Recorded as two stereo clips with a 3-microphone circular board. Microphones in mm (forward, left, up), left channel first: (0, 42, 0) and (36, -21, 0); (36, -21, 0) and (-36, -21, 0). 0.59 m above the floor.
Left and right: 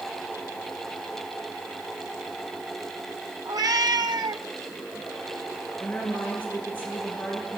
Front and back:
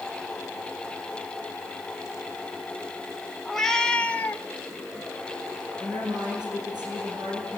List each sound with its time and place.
3.5 s a cat meowing: 90° right, 1.6 m; by 4.5 s 60° right, 1.3 m
5.8 s a woman speaking: 170° right, 10 m